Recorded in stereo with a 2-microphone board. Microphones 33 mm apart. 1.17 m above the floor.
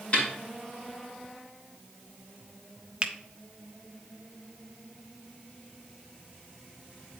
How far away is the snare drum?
About 3.5 m.